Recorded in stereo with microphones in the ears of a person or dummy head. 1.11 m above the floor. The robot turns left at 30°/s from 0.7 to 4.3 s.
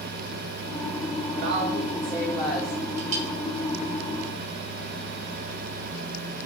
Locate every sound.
1.4 s a woman speaking: 145° right, 2.5 m; by 2.8 s 170° left, 2.5 m
3.0 s a clink: 35° right (ahead or behind), 1.4 m; by 3.3 s 45° right (ahead or behind), 1.4 m